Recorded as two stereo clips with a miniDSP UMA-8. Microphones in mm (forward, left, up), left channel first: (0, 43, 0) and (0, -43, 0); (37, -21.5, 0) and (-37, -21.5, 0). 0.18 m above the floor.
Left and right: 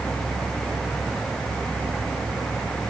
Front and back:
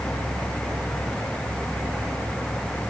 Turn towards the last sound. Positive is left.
No sound to turn to.